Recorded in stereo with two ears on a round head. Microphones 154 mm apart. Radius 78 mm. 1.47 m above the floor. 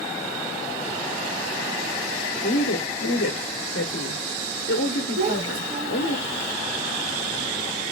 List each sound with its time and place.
2.4 s a woman speaking: 75° left (ahead or behind), 1.0 m
5.2 s a child speaking: 50° right (ahead or behind), 1.3 m